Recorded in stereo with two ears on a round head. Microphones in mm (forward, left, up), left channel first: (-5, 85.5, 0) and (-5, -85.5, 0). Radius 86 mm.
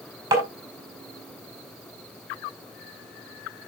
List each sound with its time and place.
0.3 s tapping: 15° right (ahead or behind), 4.5 m